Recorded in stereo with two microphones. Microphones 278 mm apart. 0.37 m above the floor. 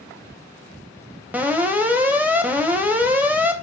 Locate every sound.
1.3 s an alarm: 5° right (ahead or behind), 3 m